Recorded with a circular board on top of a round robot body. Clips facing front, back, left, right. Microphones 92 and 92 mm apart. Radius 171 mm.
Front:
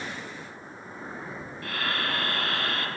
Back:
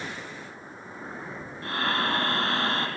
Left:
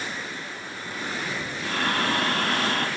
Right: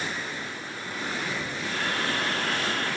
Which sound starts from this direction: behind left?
Breathing, at 1.6 s.